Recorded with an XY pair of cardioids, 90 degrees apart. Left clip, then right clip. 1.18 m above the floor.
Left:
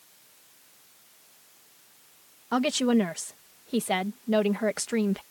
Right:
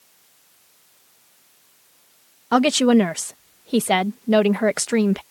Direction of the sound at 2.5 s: 55° right.